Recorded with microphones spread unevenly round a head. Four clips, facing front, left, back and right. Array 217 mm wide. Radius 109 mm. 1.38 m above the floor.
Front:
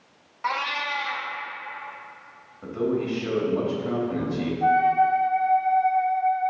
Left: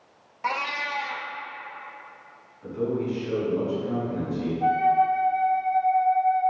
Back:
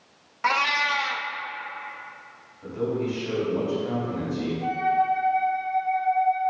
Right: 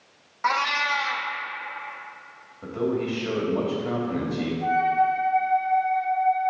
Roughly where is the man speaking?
Ahead right.